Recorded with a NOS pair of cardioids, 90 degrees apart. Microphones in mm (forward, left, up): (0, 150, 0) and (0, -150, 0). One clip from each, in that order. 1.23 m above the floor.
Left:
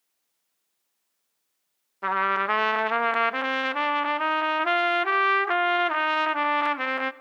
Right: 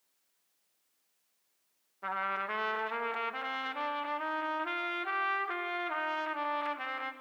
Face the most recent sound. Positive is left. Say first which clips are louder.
# left 10 dB
turn(degrees=50)